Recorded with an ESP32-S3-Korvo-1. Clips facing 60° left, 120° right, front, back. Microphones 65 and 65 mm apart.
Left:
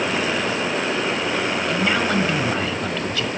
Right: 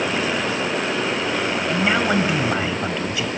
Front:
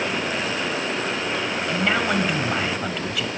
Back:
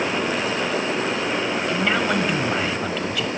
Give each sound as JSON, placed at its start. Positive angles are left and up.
{"t": 1.7, "sound": "a man speaking", "azimuth_deg": -85, "distance_m": 1.5}